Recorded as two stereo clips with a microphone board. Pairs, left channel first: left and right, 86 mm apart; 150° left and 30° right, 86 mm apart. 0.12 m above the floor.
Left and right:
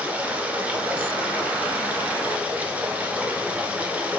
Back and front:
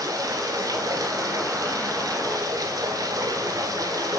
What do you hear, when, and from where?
0.0 s running water: 25° right, 1.3 m